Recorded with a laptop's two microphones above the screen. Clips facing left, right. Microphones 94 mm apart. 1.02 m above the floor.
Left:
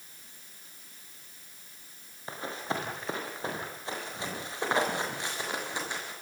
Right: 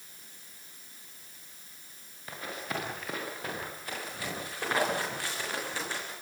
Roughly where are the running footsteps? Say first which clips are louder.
Left 3 dB; left.